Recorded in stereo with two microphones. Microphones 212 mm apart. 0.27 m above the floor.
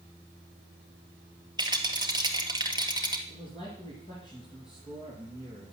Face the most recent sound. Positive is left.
turn(degrees=20)  # may be behind; listen again after turning